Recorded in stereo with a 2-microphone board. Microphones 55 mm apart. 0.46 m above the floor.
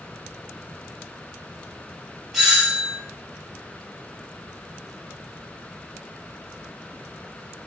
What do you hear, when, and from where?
2.3 s a doorbell: centre (ahead or behind), 1.3 m